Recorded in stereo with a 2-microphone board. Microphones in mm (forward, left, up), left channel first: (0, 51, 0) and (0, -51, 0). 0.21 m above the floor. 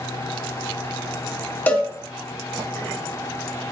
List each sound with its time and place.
1.7 s a cowbell: 15° left (ahead or behind), 0.9 m